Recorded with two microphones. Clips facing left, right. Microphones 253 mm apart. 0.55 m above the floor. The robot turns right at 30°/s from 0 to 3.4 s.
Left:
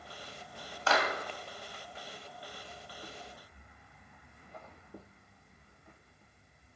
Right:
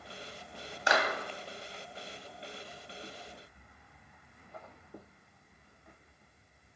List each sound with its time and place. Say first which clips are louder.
0.9 s a clap: even; 15° right (ahead or behind), 2 m; by 1.1 s 10° right (ahead or behind), 2 m